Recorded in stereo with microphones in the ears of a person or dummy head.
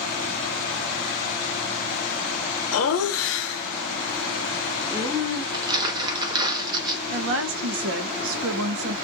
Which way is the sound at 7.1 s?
80° right.